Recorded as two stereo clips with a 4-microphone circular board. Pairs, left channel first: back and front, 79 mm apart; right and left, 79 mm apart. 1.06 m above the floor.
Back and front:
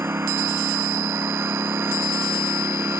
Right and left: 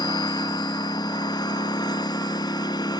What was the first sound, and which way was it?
A lawn mower, 60° right.